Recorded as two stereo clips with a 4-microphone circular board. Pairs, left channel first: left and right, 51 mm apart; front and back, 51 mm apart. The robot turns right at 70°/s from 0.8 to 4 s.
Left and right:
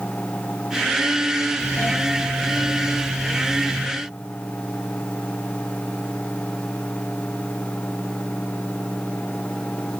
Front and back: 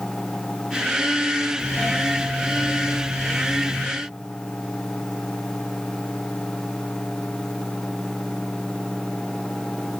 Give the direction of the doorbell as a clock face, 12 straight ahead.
10 o'clock.